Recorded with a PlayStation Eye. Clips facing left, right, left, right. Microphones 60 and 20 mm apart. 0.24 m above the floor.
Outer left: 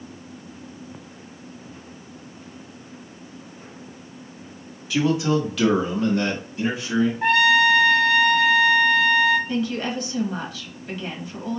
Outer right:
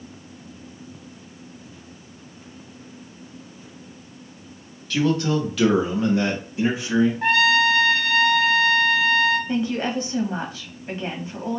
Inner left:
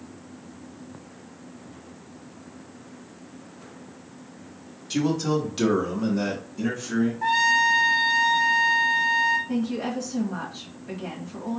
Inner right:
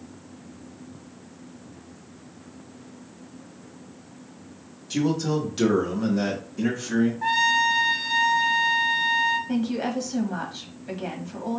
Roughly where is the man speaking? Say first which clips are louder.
Even, even; centre.